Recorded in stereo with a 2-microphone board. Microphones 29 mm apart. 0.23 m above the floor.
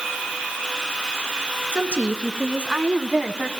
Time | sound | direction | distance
1.7 | a woman speaking | 55° right (ahead or behind) | 2.5 m